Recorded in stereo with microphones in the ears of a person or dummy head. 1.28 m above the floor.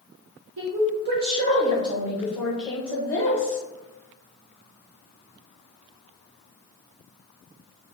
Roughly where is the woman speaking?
Right.